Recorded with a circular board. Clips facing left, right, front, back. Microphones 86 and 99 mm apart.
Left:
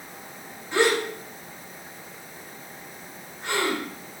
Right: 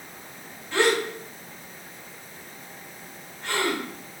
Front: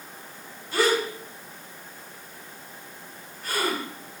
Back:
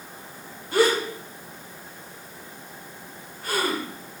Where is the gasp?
155° left, 2 m.